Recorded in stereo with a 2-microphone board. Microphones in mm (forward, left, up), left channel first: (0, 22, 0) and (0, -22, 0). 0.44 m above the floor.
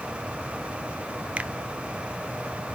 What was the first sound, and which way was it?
A finger snap, 30° right (ahead or behind).